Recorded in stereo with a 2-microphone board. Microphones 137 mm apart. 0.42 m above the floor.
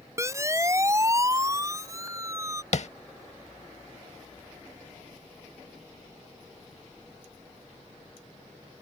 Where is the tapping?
60° left (ahead or behind).